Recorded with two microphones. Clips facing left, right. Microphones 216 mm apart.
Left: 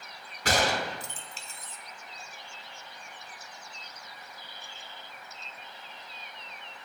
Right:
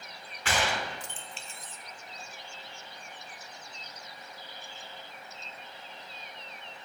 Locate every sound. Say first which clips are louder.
0.5 s a gunshot: left 4 dB; 40° left (ahead or behind), 0.5 m